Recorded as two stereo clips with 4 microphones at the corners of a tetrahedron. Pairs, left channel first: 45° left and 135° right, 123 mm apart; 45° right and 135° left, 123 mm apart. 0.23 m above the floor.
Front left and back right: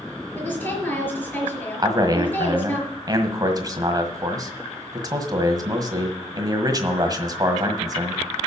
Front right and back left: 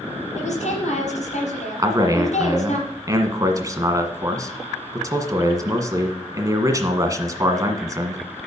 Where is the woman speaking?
30° right, 5 m.